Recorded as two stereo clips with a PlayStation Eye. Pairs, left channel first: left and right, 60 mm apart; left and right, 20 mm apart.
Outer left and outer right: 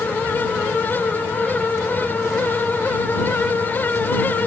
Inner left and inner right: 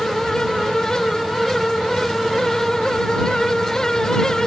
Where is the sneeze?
No sneeze in this recording.